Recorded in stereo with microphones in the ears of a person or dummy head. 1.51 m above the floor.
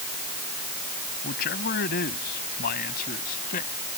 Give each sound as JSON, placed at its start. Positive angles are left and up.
{"t": 1.2, "sound": "a man speaking", "side_deg": 55}